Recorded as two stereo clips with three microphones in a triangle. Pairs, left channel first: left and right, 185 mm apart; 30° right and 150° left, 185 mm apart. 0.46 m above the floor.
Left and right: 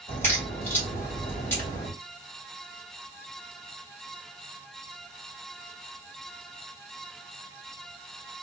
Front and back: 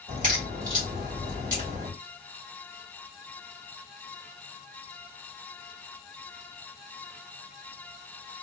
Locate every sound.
0.1 s a crack: 165° left, 1.6 m